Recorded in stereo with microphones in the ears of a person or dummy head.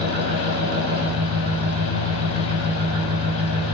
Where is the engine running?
50° right (ahead or behind), 1.1 m.